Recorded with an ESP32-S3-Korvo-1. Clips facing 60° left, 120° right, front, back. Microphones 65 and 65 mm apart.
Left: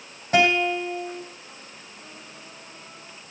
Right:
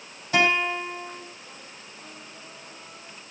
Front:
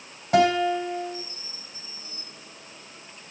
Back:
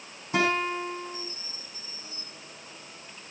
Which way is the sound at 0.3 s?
15° left.